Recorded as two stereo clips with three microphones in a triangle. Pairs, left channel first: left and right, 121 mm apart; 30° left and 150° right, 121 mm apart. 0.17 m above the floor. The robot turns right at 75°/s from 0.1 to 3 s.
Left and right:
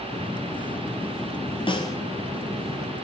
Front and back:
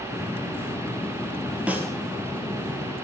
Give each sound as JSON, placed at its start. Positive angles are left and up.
{"t": 1.7, "sound": "a snare drum", "azimuth_deg": 130, "distance_m": 2.5}